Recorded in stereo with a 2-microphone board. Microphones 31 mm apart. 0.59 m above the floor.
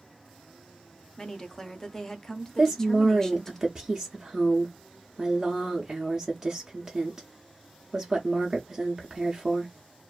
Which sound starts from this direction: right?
A woman speaking, at 2.6 s.